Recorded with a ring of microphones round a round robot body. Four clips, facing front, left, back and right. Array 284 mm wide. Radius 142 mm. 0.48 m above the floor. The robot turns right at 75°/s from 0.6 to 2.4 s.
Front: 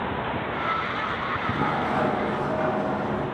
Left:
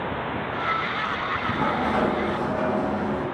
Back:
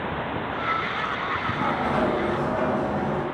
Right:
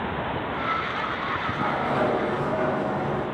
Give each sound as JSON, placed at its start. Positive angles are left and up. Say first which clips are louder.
{"t": 1.4, "sound": "a sliding door", "louder": "left 3 dB, even", "azimuth_deg": 85, "distance_m": 4.0}